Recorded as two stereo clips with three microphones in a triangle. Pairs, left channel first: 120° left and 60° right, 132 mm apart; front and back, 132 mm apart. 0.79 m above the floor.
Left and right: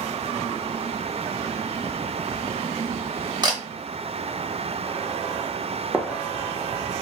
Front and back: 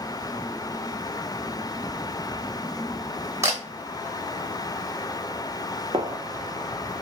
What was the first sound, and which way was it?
A camera shutter, 115° right.